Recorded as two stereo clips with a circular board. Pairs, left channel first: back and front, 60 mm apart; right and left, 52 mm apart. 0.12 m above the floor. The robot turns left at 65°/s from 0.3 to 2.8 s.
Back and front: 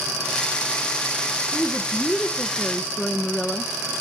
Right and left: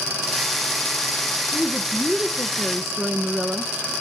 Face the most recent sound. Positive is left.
turn(degrees=175)